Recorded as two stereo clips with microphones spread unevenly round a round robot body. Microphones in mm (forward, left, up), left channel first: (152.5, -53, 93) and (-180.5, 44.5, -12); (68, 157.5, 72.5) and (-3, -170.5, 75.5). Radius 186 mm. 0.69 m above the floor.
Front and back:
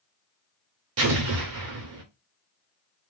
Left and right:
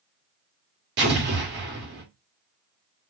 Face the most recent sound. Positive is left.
turn(degrees=-160)